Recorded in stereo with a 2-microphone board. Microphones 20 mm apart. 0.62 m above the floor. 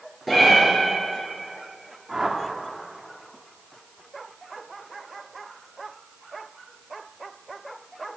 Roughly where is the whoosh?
Right.